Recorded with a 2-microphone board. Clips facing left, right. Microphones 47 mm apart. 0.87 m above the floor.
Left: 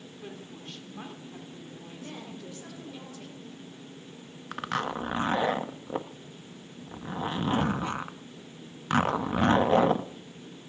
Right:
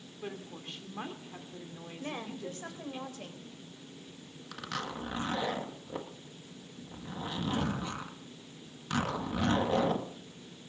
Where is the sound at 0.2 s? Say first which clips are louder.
Right 2 dB; 25° right (ahead or behind), 2.5 m.